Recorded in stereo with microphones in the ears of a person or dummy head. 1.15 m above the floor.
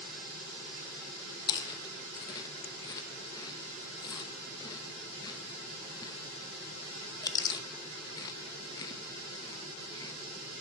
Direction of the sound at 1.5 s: 20° left (ahead or behind).